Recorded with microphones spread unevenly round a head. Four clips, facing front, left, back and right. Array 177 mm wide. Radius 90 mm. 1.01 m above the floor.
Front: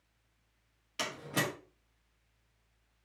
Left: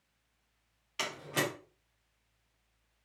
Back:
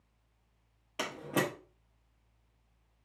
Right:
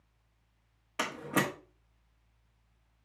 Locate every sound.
1.0 s a door slam: 135° right, 1.6 m